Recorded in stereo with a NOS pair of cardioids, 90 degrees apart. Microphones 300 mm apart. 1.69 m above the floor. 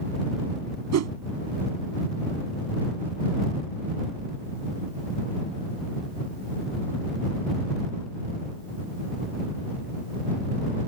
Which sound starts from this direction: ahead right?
A whoosh, at 0.9 s.